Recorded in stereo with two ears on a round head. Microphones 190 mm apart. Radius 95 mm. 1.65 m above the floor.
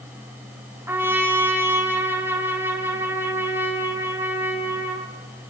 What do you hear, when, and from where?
0.9 s a trumpet: 10° right (ahead or behind), 2.5 m